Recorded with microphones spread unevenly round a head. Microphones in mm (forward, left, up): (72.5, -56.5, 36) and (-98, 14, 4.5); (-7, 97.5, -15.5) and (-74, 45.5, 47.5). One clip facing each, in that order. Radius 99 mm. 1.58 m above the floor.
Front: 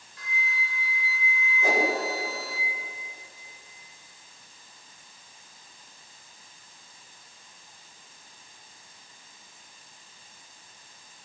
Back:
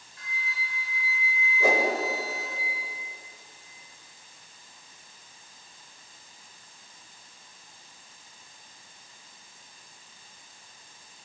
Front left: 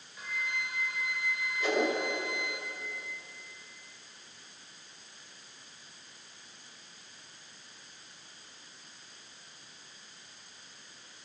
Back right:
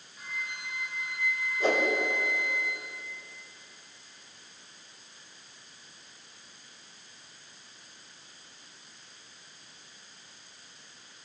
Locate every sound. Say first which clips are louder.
0.2 s a flute: front 4 dB, front left 3 dB; 10° left, 3 m
1.6 s a whoosh: back 2 dB, back right 2 dB; 175° right, 7 m